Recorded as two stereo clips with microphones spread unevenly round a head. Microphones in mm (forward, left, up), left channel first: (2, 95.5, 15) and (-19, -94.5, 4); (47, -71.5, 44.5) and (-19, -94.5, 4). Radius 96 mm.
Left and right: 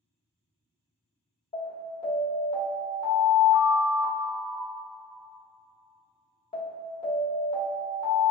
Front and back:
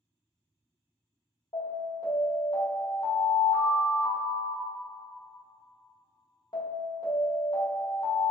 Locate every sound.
1.5 s an alarm: 20° left, 1.8 m